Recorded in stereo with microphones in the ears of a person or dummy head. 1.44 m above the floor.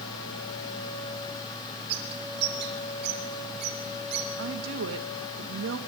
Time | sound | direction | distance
1.9 | a bird | 60° right (ahead or behind) | 3 m
4.4 | a woman speaking | 70° right (ahead or behind) | 1.6 m